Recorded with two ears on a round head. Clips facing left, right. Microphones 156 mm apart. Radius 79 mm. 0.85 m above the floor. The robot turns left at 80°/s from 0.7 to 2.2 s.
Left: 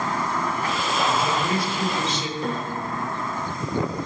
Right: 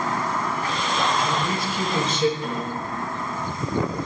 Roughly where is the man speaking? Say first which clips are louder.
Left 1 dB; ahead left.